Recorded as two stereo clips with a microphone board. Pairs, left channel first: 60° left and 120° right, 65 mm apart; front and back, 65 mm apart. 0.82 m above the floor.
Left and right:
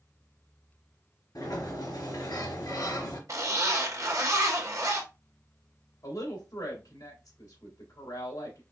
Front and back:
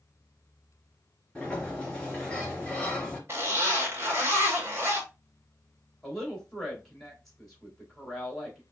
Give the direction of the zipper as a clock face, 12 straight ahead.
5 o'clock.